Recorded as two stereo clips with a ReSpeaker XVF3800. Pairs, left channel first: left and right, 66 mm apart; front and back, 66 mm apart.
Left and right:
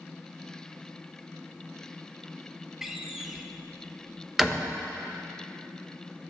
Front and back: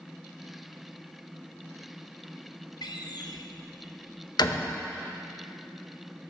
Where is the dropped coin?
I don't hear a dropped coin.